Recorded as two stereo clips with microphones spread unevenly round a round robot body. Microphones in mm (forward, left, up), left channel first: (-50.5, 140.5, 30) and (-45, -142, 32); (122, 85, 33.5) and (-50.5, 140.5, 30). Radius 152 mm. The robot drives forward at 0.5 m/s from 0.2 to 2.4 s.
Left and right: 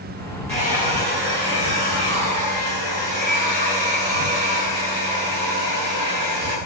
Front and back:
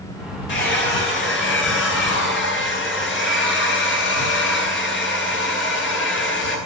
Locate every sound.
0.5 s a hair dryer: 15° right, 9 m; by 6.6 s 20° right, 8 m